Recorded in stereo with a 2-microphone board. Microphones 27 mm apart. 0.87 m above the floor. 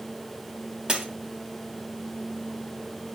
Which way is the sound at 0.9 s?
40° right (ahead or behind).